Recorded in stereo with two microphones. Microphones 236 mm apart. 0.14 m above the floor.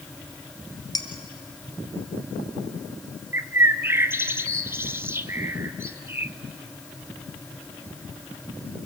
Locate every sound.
0.9 s dishes clattering: 15° left (ahead or behind), 1.6 m
3.3 s a bird: 10° right (ahead or behind), 0.5 m